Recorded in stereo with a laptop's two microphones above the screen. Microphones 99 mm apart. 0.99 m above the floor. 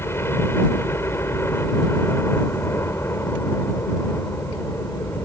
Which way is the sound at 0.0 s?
25° left (ahead or behind).